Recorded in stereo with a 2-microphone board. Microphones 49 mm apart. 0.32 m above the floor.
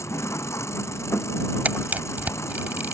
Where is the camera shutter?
35° right (ahead or behind).